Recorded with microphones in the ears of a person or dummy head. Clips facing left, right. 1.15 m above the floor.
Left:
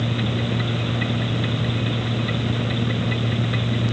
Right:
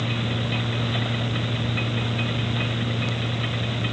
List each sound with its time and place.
Only background noise.